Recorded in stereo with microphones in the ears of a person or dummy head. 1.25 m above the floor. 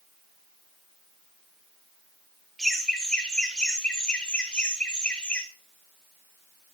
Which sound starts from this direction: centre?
Laughter, at 2.6 s.